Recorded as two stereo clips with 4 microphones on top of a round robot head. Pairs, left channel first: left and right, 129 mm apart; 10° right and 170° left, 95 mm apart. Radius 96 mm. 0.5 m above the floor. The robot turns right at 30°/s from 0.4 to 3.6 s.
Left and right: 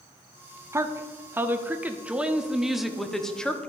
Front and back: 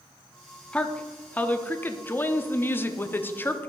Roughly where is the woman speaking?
Ahead right.